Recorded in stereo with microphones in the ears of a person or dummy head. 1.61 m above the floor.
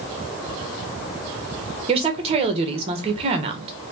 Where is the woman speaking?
30° right (ahead or behind), 1.3 m.